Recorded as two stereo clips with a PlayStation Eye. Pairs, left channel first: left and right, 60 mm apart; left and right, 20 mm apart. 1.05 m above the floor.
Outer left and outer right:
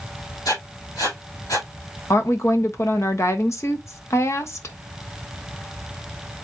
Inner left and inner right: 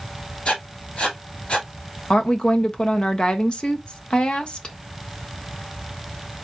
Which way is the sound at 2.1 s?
50° left (ahead or behind).